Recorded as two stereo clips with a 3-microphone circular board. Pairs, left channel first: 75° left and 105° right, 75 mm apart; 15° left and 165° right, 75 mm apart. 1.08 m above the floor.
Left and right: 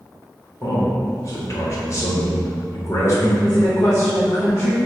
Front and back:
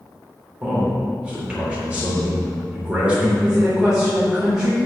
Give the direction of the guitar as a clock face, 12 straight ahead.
No guitar in this recording.